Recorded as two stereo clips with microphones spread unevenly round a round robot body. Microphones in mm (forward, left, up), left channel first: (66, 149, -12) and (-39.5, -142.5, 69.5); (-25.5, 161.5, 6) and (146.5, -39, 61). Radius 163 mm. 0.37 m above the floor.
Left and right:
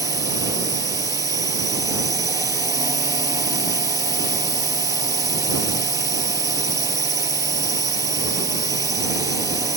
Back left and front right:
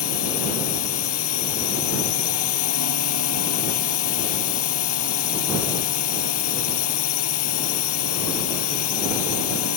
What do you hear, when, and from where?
0.0 s a drone: 170° left